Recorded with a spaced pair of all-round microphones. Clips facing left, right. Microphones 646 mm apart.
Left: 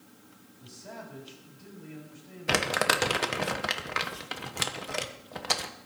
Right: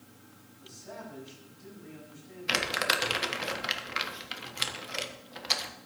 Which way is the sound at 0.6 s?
85° left.